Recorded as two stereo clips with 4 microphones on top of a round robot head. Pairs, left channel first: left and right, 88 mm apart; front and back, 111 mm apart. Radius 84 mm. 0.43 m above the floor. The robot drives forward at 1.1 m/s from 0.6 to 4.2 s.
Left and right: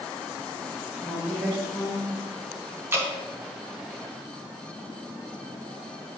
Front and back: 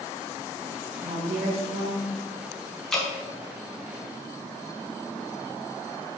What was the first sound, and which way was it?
A woman speaking, straight behind.